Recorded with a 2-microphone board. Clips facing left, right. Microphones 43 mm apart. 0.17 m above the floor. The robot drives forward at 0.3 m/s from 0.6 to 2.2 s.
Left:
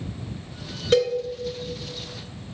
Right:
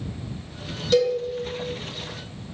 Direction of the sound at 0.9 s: 45° left (ahead or behind).